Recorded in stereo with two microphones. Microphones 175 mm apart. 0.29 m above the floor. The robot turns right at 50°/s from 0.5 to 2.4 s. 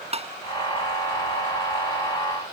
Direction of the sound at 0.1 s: 35° right (ahead or behind).